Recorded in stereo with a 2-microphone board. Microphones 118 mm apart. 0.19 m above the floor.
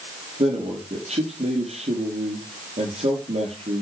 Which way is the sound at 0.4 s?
75° right (ahead or behind).